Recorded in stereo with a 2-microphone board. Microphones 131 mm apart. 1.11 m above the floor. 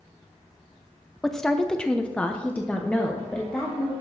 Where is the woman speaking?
5° left (ahead or behind), 0.7 m; by 3.9 s 10° left (ahead or behind), 1.6 m.